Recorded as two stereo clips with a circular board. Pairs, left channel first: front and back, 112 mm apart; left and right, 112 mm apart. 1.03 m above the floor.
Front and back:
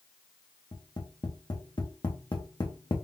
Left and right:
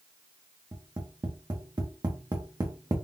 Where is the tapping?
40° right, 0.9 m.